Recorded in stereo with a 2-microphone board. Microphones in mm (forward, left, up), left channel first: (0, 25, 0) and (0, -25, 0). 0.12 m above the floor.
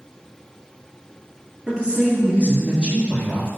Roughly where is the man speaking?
Right.